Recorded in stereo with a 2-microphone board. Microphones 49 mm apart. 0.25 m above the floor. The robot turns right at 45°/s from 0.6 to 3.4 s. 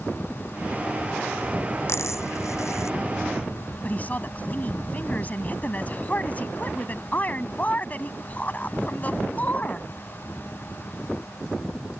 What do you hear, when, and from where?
1.9 s a dropped coin: 60° left (ahead or behind); by 3.0 s 70° left (ahead or behind)
3.8 s a woman speaking: 35° left (ahead or behind)